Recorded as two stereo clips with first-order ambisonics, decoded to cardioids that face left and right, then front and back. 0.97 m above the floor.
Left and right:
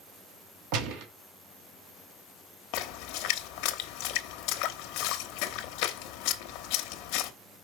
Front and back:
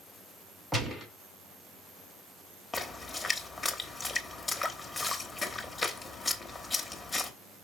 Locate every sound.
0.7 s a gunshot: 90° right, 1.6 m
2.7 s a splash: 75° left, 1.0 m